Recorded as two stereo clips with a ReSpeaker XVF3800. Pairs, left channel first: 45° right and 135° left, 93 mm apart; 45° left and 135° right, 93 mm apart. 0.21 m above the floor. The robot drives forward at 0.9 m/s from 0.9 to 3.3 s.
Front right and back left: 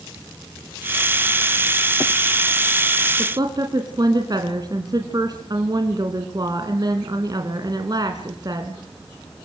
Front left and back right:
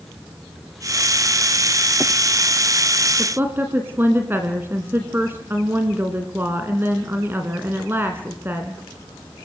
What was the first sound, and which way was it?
A woman speaking, 165° left.